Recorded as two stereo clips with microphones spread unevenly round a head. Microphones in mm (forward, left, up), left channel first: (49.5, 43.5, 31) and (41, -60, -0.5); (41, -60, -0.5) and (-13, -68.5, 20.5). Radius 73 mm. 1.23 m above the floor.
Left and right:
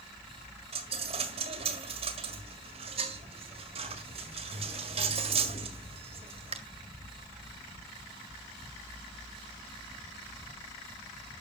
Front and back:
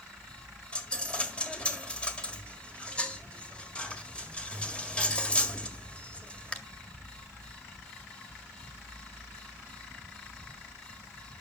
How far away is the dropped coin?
About 1.7 m.